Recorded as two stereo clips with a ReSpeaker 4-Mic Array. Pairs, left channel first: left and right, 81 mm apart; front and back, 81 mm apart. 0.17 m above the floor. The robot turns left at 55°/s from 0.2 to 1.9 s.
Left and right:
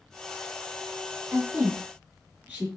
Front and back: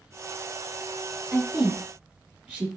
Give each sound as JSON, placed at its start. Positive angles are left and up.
{"t": 1.3, "sound": "a woman speaking", "azimuth_deg": -95, "distance_m": 1.1}